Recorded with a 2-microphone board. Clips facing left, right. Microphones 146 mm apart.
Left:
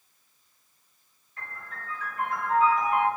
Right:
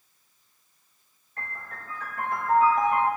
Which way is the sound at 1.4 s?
55° right (ahead or behind).